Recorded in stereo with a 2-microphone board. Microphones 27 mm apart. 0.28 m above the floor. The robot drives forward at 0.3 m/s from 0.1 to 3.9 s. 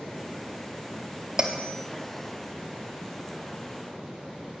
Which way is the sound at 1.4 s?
30° right (ahead or behind).